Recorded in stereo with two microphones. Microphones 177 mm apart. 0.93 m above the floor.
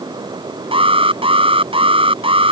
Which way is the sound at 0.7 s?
30° right (ahead or behind).